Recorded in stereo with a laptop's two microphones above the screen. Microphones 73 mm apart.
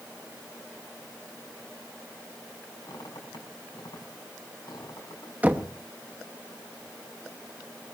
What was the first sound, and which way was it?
A squeak, 70° left (ahead or behind).